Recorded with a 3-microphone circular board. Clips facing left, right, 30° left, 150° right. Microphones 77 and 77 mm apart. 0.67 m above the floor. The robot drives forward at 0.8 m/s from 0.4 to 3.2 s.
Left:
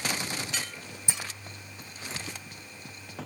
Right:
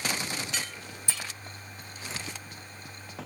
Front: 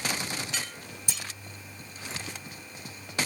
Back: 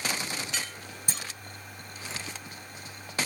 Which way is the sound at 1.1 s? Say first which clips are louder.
Left 1 dB, back 1 dB; 160° left.